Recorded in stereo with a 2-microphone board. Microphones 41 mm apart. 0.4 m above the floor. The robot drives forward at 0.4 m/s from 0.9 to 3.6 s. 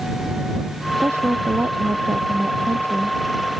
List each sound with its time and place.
1.0 s a woman speaking: 85° right